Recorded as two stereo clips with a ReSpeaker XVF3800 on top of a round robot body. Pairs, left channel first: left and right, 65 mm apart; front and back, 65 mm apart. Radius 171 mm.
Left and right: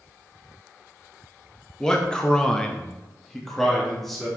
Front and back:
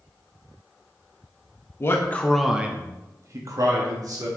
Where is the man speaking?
15° left, 1.4 m; by 4.3 s 175° left, 3 m.